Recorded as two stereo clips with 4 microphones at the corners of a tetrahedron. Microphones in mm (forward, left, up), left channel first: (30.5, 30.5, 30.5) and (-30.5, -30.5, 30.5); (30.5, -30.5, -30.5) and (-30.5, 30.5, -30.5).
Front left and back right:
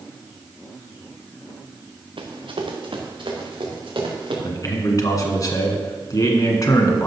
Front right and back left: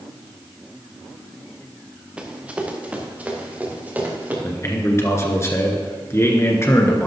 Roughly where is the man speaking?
Ahead.